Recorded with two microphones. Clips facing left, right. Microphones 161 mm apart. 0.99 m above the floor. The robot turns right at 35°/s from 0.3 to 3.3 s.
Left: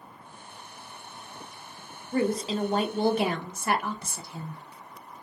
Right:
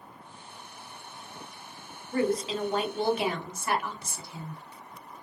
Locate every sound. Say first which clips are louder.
2.1 s a woman speaking: left 1 dB; 25° left, 0.6 m; by 4.6 s 65° left, 0.6 m